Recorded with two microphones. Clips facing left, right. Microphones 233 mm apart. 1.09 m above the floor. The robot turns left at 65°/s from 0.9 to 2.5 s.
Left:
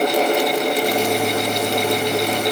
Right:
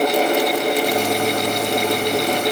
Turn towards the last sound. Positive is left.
No sound to turn to.